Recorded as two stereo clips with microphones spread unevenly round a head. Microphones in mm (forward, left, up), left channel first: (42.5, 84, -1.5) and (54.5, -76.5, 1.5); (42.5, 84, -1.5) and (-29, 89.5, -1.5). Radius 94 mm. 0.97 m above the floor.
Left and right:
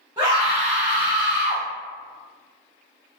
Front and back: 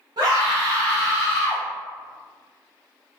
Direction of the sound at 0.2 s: 160° right.